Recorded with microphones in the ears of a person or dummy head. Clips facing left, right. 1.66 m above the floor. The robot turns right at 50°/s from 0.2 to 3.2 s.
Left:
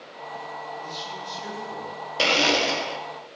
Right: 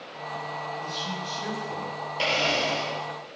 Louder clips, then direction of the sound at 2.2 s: Left 4 dB; 75° left.